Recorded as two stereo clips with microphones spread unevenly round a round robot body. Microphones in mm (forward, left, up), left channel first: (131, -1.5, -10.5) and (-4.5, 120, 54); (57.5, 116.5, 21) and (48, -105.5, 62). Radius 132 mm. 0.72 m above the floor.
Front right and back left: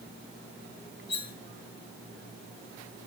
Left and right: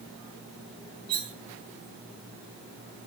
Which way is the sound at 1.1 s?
80° right.